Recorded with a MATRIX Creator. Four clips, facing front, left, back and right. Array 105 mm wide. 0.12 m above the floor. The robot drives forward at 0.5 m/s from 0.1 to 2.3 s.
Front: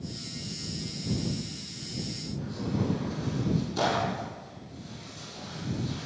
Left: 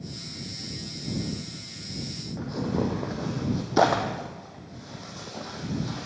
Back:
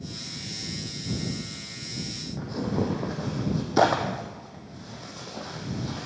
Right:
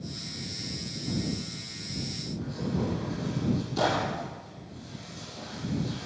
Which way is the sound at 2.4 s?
135° left.